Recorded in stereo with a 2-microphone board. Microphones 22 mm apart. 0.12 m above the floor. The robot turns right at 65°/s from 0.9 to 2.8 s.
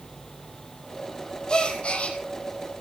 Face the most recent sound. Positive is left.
turn(degrees=130)